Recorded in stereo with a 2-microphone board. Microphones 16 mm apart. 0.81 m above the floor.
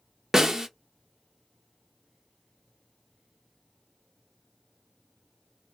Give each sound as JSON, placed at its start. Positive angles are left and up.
{"t": 0.3, "sound": "a snare drum", "side_deg": -25, "distance_m": 0.9}